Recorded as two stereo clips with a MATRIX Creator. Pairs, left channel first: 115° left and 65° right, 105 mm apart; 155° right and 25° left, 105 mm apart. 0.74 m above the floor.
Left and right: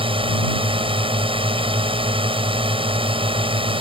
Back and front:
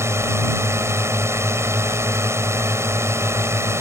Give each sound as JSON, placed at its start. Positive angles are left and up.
{"t": 0.0, "sound": "a drone", "azimuth_deg": -40}